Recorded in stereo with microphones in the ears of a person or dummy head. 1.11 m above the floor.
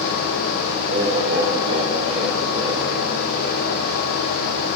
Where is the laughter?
45° right (ahead or behind), 4.5 m; by 2.9 s 35° right (ahead or behind), 3.5 m.